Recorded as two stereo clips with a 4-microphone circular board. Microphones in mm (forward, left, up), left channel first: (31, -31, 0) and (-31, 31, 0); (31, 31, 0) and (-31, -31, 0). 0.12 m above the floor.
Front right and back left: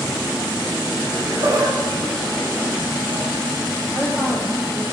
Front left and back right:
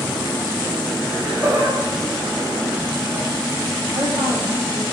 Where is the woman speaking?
160° right, 4 m.